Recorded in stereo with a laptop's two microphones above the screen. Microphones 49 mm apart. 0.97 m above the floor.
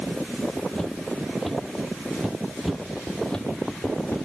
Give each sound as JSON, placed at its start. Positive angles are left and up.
{"t": 0.8, "sound": "footsteps", "side_deg": 15, "distance_m": 1.2}
{"t": 2.6, "sound": "footsteps", "side_deg": 0, "distance_m": 1.0}